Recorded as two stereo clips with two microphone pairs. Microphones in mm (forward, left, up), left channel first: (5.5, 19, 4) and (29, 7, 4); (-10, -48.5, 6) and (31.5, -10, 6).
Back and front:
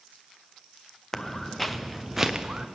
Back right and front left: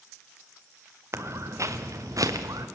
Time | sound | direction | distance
1.1 | footsteps | 80° left | 1.2 m